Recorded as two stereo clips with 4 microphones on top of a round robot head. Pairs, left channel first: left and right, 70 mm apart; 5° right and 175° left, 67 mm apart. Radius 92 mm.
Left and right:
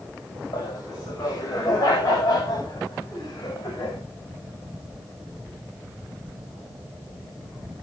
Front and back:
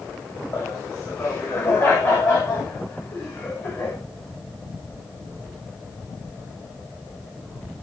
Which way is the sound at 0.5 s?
40° left.